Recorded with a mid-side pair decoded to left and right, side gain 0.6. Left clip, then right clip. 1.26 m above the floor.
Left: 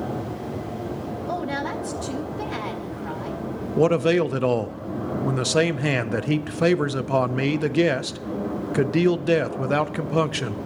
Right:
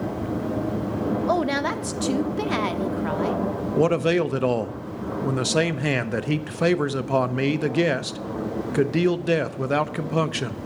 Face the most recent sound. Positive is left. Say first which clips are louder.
# left 2 dB
turn(degrees=5)